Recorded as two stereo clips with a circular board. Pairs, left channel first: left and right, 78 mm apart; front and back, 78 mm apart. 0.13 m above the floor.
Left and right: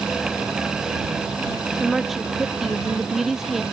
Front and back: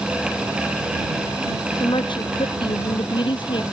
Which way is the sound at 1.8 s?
Straight ahead.